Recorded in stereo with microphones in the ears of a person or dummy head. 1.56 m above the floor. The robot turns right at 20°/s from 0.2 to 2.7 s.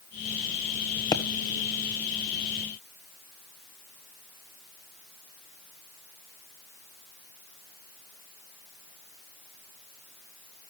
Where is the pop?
25° left (ahead or behind), 1.3 m; by 1.2 s 20° left (ahead or behind), 1.3 m.